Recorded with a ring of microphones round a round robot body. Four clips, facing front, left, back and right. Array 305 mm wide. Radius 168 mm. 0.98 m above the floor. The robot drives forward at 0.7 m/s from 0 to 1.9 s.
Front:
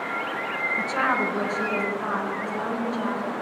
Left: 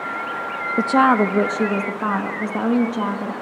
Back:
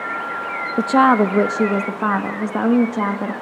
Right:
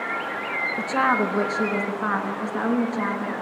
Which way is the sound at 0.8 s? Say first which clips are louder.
Left 7 dB, back 12 dB; 145° left.